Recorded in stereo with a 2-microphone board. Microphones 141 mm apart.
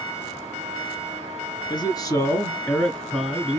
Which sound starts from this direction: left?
A man speaking, at 1.7 s.